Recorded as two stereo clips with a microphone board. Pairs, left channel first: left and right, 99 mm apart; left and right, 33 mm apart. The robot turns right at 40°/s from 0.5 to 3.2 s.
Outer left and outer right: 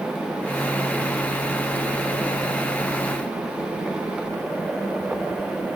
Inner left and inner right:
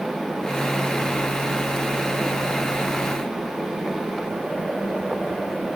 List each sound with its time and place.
Only background noise.